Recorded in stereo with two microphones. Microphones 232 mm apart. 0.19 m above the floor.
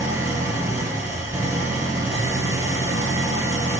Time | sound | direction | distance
0.0 | an engine running | 15° right (ahead or behind) | 0.7 m